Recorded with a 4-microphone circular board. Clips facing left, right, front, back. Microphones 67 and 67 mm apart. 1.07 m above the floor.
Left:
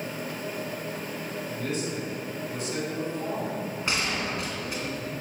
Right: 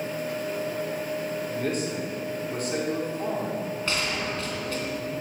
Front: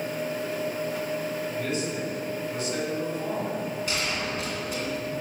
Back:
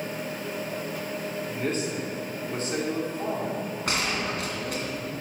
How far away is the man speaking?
About 3 m.